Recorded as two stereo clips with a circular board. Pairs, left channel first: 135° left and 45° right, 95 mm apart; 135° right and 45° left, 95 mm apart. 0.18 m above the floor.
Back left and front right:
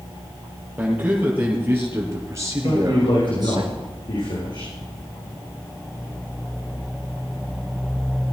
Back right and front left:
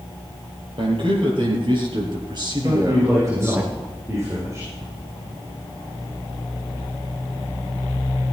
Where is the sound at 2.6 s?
105° left, 8.5 m.